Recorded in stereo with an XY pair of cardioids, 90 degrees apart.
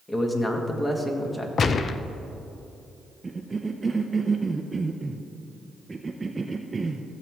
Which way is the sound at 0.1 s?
20° left.